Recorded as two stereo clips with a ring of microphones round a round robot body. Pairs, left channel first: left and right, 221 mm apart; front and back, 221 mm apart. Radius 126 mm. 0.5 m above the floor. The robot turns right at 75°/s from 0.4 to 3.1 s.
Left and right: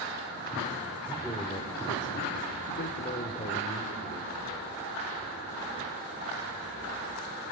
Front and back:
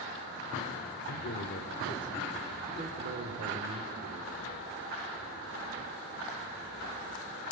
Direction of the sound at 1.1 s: 10° right.